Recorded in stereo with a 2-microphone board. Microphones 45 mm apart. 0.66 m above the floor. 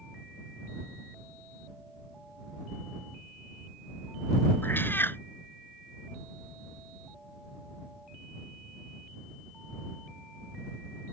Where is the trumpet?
No trumpet in this recording.